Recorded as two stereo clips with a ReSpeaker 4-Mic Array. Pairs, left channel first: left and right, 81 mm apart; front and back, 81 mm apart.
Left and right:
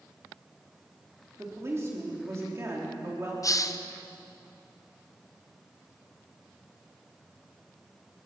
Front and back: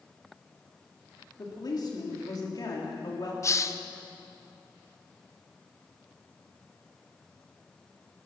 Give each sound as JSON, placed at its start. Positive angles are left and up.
{"t": 1.4, "sound": "a woman speaking", "azimuth_deg": -35, "distance_m": 3.5}
{"t": 3.4, "sound": "a hiss", "azimuth_deg": 50, "distance_m": 0.6}